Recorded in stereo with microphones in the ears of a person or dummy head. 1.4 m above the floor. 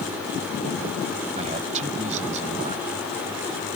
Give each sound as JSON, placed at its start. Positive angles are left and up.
{"t": 1.4, "sound": "a man speaking", "side_deg": -40}